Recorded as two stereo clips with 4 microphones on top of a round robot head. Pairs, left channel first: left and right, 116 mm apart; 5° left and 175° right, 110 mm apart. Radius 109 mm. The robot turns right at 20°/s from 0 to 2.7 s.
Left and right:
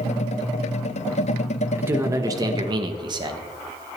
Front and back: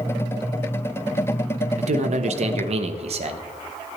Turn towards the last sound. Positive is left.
turn(degrees=-145)